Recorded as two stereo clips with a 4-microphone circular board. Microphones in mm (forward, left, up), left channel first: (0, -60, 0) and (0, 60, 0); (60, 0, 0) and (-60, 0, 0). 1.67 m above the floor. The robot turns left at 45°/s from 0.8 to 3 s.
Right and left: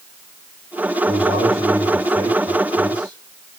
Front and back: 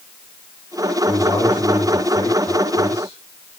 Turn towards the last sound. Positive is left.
turn(degrees=10)